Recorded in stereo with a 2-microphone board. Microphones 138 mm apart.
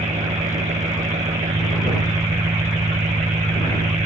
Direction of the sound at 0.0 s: 60° right (ahead or behind).